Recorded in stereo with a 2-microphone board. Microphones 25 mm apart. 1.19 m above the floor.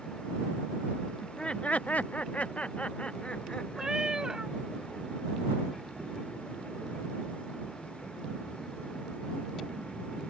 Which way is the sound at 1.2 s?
20° left (ahead or behind).